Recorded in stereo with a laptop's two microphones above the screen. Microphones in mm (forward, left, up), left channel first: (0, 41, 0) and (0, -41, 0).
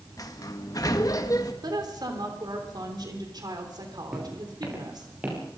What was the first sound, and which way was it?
A sliding door, 45° left (ahead or behind).